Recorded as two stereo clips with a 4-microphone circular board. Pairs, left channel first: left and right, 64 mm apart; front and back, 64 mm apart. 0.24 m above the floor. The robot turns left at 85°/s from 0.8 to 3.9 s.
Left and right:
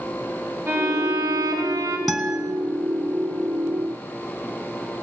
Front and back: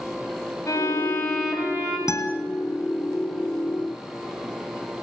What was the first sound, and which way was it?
A violin, 40° right.